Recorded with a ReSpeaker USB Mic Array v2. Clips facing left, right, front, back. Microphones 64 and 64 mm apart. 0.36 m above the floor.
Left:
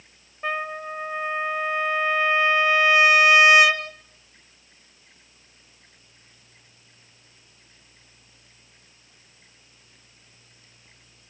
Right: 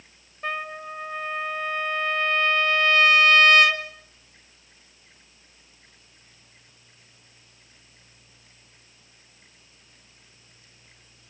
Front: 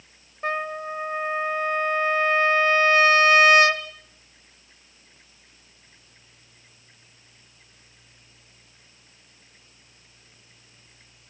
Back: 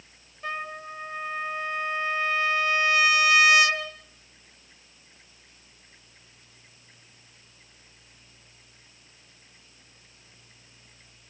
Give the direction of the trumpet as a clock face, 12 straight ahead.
12 o'clock.